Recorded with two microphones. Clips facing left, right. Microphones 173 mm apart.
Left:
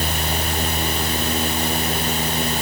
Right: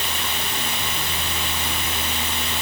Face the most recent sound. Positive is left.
No sound to turn to.